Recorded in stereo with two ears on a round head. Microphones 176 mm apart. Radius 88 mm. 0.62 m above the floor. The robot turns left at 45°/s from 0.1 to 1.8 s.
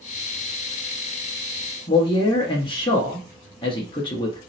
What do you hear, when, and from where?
1.9 s a man speaking: 25° left (ahead or behind), 0.7 m